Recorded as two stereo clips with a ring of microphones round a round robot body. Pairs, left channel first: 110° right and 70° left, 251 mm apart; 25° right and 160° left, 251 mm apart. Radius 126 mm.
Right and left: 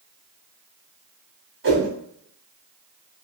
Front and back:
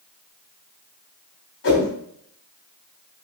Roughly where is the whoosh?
Ahead.